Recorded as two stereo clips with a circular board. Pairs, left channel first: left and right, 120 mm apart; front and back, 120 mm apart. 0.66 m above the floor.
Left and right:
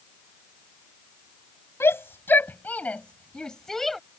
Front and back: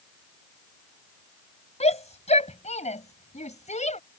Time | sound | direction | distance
1.8 | a shout | 20° left | ?